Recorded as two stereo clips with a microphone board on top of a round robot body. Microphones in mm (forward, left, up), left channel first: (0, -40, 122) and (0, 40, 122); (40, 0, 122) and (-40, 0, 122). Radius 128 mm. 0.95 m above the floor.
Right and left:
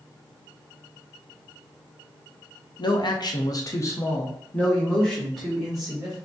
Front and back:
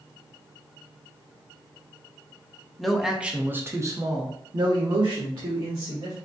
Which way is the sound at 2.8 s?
85° right.